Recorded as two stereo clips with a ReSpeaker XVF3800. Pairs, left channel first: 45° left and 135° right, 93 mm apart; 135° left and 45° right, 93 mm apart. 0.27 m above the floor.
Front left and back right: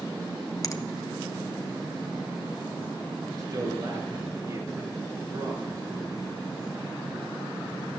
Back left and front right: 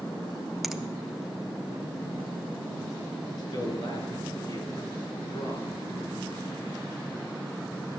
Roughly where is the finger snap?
Ahead left.